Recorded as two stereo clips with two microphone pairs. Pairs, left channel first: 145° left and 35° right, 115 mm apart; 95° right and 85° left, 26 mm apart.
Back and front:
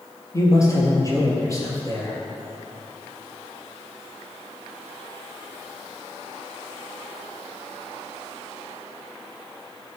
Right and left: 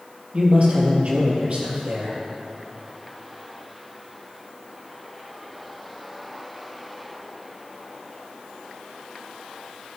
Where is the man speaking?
90° left, 3 m.